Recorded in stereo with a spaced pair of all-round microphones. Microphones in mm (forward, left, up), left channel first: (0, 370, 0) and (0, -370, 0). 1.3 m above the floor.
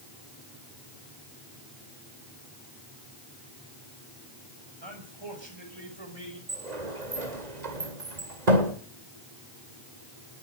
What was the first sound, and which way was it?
A man speaking, 35° right (ahead or behind).